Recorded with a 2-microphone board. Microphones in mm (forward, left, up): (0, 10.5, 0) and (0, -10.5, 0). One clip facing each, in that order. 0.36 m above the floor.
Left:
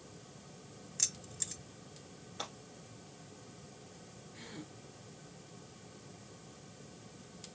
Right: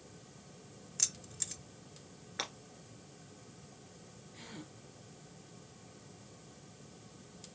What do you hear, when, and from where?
1.0 s keys jangling: 10° right (ahead or behind), 0.8 m
2.4 s breaking glass: 75° right (ahead or behind), 1.9 m
4.3 s a gasp: 5° right (ahead or behind), 1.2 m